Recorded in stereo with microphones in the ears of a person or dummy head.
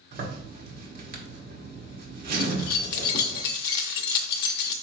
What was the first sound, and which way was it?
A zipper, 45° right (ahead or behind).